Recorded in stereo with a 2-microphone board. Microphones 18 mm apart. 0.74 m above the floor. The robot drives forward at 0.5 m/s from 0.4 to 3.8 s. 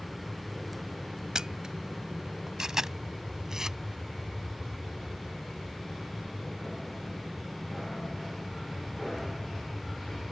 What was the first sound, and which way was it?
An aircraft, 15° right (ahead or behind).